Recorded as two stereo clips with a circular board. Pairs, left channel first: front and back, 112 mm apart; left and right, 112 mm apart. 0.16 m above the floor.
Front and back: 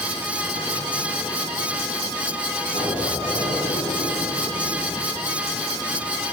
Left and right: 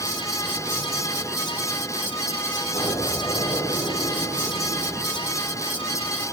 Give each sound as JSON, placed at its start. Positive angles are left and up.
{"t": 2.7, "sound": "an explosion", "azimuth_deg": 45, "distance_m": 10.0}